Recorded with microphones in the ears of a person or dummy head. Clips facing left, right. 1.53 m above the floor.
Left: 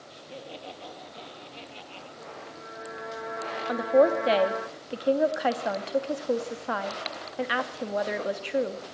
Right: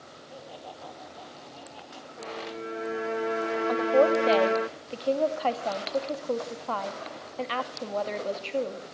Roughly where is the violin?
Right.